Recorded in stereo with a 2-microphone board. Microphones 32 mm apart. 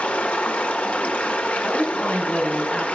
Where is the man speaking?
60° left (ahead or behind), 4.5 m.